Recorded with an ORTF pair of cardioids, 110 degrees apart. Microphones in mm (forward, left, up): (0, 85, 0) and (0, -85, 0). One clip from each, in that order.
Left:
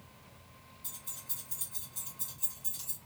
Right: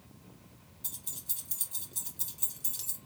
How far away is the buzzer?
No buzzer in this recording.